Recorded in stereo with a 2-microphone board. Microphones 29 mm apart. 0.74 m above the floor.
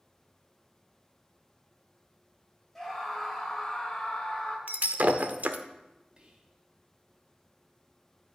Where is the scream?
10° left (ahead or behind), 2.5 m; by 4.6 s 35° left (ahead or behind), 2.5 m.